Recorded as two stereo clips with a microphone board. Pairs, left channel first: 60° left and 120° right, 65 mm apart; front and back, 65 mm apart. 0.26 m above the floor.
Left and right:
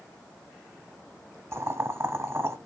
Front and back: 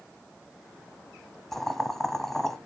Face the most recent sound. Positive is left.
turn(degrees=-85)